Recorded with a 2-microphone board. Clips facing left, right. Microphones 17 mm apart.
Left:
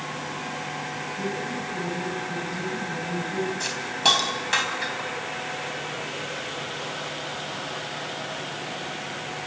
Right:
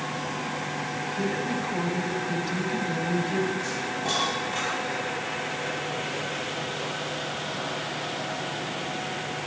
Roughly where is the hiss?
Left.